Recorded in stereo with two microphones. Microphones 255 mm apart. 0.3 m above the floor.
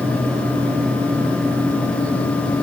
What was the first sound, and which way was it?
Only background noise.